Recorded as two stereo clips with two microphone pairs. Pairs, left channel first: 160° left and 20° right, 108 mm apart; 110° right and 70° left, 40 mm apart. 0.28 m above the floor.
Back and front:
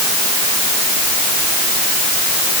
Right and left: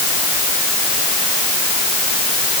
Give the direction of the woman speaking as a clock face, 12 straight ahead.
I don't hear a woman speaking.